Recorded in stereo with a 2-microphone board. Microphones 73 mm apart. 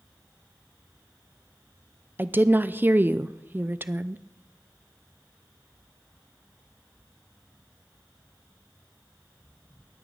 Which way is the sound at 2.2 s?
25° right (ahead or behind).